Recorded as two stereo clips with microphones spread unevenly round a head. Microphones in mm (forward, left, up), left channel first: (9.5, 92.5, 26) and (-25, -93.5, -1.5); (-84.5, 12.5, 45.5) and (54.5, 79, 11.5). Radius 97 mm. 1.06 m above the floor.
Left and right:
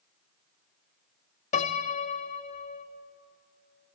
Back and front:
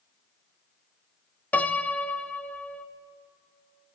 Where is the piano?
110° left, 0.8 m.